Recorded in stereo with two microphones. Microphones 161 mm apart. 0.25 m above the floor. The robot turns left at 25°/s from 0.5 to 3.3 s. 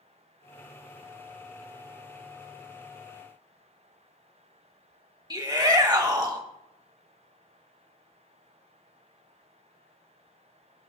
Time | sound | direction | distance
5.3 | a shout | 25° right (ahead or behind) | 1.4 m